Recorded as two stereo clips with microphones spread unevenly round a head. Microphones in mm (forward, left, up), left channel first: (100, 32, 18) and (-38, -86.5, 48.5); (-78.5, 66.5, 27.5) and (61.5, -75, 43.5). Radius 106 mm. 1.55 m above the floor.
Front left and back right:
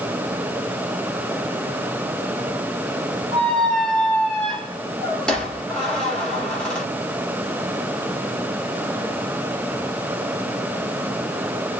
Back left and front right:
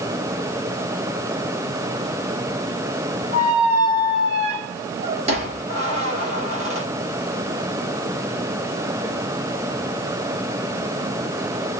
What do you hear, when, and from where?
3.3 s a squeak: 55° right, 1.3 m